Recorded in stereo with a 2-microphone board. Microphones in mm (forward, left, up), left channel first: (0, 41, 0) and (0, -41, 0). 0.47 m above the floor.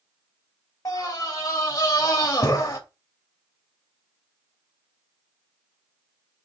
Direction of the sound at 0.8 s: 40° left (ahead or behind).